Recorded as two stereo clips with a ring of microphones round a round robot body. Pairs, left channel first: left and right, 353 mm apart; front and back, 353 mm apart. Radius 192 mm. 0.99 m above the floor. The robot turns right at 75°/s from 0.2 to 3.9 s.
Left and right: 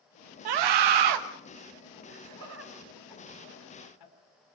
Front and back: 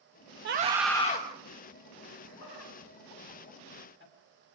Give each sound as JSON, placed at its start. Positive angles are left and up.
{"t": 0.5, "sound": "a scream", "azimuth_deg": -120, "distance_m": 1.3}
{"t": 2.1, "sound": "laughter", "azimuth_deg": -75, "distance_m": 8.5}